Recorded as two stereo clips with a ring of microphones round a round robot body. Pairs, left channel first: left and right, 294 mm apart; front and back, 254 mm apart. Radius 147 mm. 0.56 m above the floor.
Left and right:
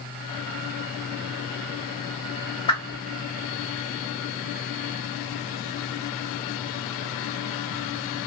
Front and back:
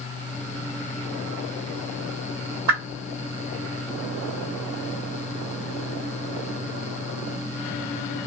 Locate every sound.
2.7 s a whoosh: 165° left, 2.0 m